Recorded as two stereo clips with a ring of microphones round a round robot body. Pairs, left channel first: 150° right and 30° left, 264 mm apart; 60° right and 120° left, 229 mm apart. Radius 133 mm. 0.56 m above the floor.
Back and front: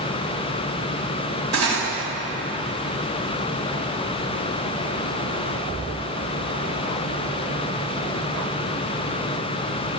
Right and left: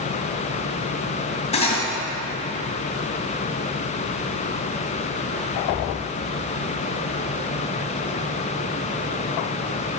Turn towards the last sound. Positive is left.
turn(degrees=5)